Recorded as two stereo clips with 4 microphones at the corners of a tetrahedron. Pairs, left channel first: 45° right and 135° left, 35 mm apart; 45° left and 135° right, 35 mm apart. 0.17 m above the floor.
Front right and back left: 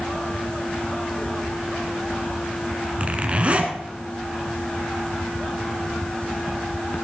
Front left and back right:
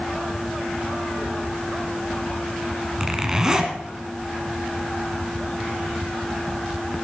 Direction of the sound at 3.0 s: 160° left.